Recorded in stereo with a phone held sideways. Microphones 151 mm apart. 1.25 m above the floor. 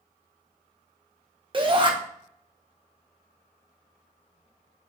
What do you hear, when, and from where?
1.5 s a shout: 35° right (ahead or behind), 1.0 m